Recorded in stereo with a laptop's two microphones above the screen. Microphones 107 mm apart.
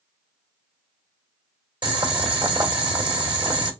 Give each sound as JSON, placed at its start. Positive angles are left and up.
{"t": 1.8, "sound": "boiling", "side_deg": -45, "distance_m": 1.6}